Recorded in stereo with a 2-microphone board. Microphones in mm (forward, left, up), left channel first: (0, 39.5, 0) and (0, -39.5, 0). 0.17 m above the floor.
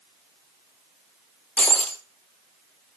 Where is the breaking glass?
15° left (ahead or behind), 1.3 m.